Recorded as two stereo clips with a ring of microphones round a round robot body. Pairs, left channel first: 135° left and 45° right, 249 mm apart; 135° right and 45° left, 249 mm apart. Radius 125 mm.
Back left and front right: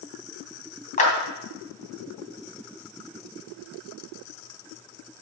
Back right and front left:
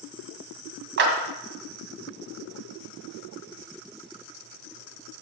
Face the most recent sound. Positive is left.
turn(degrees=80)